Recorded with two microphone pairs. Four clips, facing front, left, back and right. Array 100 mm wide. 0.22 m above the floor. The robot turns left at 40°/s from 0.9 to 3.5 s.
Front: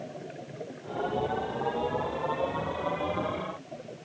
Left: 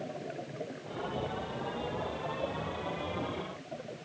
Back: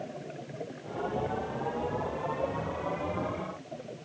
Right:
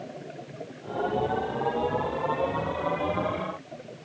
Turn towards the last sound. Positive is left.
No sound to turn to.